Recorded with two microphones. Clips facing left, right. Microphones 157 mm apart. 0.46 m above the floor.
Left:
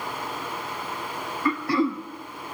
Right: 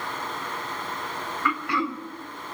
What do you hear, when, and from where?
1.4 s throat clearing: 35° left (ahead or behind), 0.7 m